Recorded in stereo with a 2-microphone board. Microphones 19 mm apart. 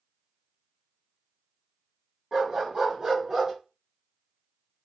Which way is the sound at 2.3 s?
35° right (ahead or behind).